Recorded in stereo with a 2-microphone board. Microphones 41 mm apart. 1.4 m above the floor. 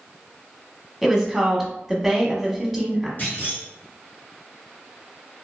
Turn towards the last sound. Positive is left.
turn(degrees=45)  # may be behind; listen again after turning